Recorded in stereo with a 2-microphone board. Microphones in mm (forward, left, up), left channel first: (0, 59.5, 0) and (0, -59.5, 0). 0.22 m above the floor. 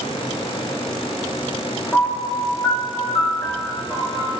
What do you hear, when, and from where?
1.9 s a piano: 15° left (ahead or behind), 1.1 m